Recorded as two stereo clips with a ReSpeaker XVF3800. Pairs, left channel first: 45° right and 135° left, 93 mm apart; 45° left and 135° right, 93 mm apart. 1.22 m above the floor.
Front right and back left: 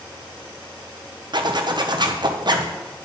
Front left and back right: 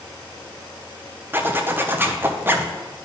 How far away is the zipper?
About 0.7 m.